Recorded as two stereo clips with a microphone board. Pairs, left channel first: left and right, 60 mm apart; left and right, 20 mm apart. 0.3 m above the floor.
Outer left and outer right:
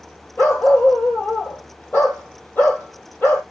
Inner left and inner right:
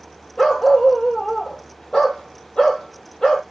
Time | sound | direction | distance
0.4 | a dog barking | 30° left (ahead or behind) | 3 m